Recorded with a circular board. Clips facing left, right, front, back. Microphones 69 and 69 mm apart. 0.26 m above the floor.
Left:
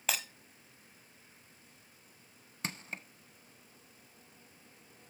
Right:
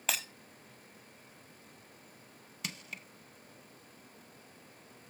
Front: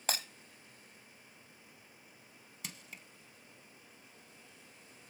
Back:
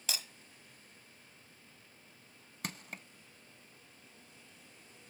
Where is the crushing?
145° left, 0.6 m.